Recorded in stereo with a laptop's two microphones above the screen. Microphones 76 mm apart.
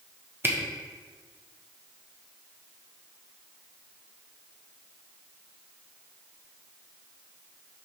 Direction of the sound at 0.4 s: 30° right (ahead or behind).